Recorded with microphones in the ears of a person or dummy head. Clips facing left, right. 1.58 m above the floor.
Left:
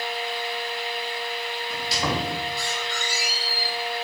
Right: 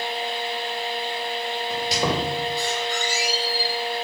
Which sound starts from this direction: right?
A squeak, at 1.7 s.